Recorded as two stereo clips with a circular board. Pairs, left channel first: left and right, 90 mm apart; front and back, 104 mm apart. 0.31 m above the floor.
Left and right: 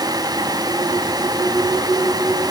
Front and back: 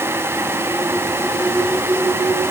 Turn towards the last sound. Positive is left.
No sound to turn to.